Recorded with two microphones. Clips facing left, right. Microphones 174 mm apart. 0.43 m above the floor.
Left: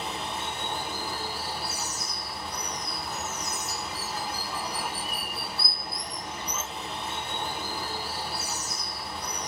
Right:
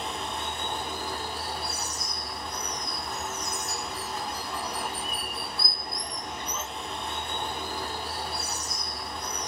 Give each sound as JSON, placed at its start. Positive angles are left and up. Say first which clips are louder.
{"t": 0.0, "sound": "running water", "louder": "even", "side_deg": 0, "distance_m": 0.9}